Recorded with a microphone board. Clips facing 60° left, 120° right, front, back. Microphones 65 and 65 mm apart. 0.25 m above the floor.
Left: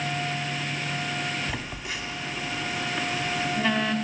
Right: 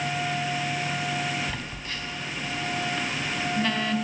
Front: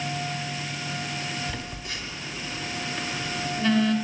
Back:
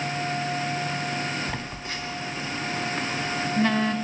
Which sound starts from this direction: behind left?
A phone buzzing, at 1.5 s.